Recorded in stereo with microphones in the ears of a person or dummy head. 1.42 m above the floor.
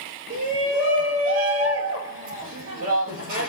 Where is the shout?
50° right (ahead or behind), 2 m.